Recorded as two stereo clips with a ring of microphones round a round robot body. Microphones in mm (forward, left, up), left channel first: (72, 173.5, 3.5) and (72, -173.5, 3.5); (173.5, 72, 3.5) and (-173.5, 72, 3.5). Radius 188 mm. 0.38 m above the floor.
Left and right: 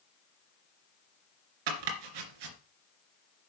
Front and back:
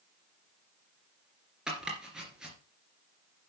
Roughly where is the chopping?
Right.